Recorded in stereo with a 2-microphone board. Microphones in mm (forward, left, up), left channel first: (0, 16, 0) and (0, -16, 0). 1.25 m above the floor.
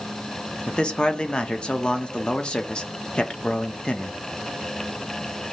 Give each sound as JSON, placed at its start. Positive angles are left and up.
{"t": 0.7, "sound": "a man speaking", "side_deg": 30, "distance_m": 0.7}